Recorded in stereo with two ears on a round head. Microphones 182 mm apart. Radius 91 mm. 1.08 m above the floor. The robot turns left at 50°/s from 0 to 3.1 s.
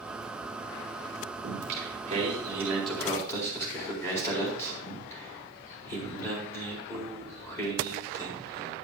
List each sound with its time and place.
1.4 s singing: 110° right, 4 m; by 8.7 s 165° left, 4 m